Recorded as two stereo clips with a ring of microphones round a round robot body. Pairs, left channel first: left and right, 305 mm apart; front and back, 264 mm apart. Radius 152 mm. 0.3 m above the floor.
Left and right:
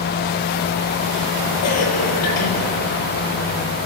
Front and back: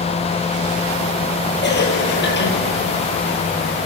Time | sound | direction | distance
1.6 | a cough | 50° left | 7 m